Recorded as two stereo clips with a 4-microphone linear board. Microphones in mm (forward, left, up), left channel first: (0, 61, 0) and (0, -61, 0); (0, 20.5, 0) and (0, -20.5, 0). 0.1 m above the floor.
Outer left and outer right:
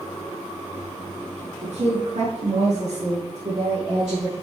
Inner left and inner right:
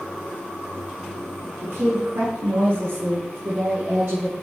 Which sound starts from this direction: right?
A woman speaking, at 1.6 s.